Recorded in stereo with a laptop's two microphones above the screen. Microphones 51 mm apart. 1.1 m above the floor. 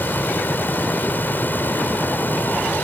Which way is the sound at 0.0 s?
40° left (ahead or behind).